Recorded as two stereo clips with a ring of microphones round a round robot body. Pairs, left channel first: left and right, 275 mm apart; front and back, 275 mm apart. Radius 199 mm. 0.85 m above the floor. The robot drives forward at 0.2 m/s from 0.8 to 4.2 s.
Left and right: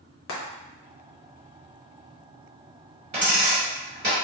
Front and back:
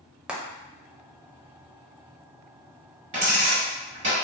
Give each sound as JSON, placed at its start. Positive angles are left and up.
{"t": 0.3, "sound": "frying", "azimuth_deg": 95, "distance_m": 0.8}
{"t": 3.1, "sound": "a dropped coin", "azimuth_deg": -135, "distance_m": 1.5}